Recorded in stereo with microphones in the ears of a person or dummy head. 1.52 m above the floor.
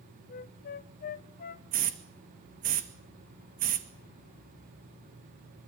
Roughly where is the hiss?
Right.